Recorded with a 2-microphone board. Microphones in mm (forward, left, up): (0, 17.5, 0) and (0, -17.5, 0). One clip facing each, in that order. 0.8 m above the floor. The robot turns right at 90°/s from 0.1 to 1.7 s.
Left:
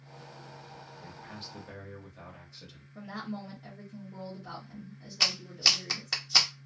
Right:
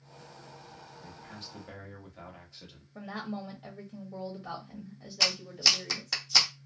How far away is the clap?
About 0.6 m.